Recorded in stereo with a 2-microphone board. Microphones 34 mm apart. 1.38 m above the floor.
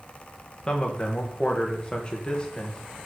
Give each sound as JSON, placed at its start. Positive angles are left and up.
{"t": 0.7, "sound": "a man speaking", "side_deg": 25, "distance_m": 1.7}